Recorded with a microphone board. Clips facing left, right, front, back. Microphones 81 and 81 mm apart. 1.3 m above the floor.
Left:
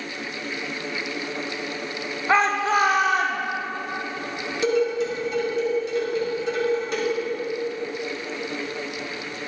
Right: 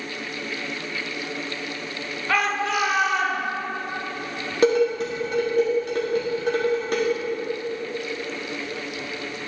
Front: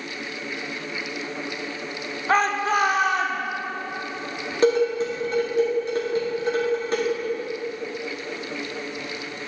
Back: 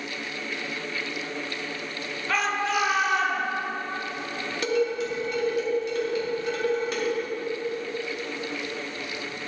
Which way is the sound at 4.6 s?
55° right.